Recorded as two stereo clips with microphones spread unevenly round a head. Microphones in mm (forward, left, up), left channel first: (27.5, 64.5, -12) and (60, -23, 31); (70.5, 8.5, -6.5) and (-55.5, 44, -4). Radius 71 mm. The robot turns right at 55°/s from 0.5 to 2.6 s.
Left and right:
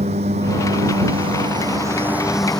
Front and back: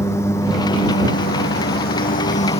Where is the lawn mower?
90° right; by 2.6 s 25° left.